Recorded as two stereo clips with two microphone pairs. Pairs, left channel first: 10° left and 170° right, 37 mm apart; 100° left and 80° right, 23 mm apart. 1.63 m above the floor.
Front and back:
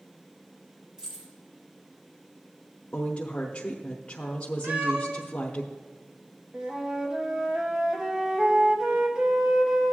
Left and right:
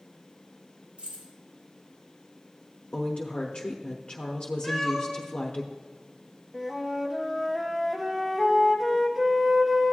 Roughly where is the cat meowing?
Behind.